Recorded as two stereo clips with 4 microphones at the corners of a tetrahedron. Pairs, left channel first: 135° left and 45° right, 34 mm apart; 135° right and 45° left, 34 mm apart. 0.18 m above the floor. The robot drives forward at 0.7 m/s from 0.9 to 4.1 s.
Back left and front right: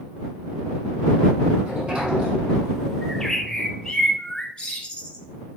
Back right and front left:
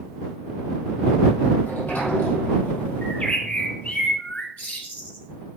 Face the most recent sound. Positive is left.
turn(degrees=-165)